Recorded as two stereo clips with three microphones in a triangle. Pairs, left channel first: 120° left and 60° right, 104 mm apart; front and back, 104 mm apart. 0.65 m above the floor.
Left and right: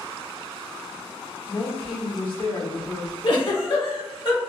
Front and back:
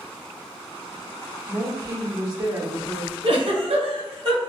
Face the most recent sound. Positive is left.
turn(degrees=155)